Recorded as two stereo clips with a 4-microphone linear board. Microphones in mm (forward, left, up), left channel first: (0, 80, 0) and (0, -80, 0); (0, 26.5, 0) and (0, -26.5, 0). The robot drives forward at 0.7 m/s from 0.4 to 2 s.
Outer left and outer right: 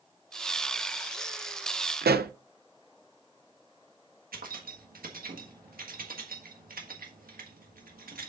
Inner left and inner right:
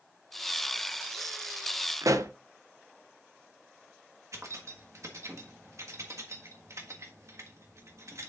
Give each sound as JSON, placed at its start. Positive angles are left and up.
{"t": 2.0, "sound": "a pop", "side_deg": -85, "distance_m": 0.6}
{"t": 4.3, "sound": "keys jangling", "side_deg": -65, "distance_m": 1.4}